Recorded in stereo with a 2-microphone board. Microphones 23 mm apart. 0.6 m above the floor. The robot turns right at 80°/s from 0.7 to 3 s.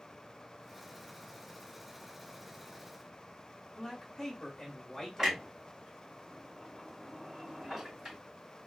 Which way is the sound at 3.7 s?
5° left (ahead or behind).